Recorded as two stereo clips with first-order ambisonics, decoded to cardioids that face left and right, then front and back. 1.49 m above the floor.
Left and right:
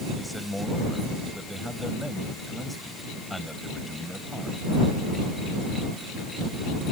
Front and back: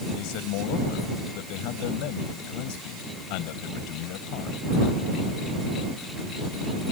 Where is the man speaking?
Straight ahead.